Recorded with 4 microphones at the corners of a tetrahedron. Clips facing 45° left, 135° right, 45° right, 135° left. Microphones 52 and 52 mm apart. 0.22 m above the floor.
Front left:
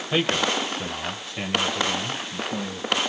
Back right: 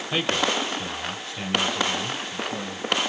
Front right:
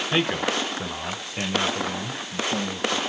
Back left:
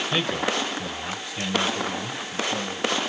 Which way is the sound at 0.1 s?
25° right.